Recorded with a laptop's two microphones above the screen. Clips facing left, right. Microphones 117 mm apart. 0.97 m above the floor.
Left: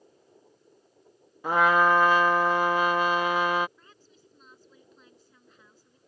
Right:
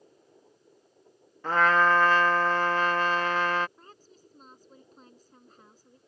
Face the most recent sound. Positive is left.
turn(degrees=-40)  # may be behind; listen again after turning